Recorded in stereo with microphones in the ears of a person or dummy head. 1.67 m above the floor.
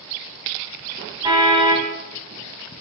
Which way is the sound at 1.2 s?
20° right (ahead or behind).